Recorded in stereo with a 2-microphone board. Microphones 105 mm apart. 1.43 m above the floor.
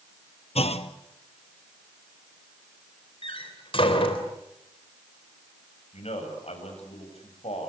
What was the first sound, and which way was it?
A clunk, 75° left (ahead or behind).